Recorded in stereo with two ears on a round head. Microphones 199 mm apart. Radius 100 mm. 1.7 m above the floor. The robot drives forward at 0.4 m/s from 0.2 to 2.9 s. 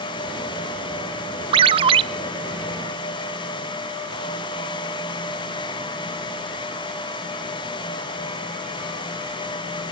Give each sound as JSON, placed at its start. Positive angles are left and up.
{"t": 1.5, "sound": "a ringtone", "side_deg": -25, "distance_m": 0.7}